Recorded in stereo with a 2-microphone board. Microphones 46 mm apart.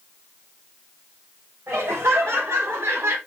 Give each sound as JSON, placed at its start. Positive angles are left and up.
{"t": 1.7, "sound": "laughter", "side_deg": -75, "distance_m": 3.5}